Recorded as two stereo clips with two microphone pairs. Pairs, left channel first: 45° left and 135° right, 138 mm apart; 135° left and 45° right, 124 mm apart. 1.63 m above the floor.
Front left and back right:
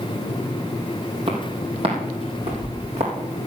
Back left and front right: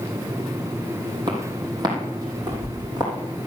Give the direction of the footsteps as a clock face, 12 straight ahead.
3 o'clock.